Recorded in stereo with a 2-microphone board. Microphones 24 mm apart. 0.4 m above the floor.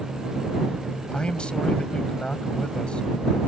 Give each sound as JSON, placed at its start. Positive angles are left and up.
{"t": 1.1, "sound": "a man speaking", "side_deg": 50}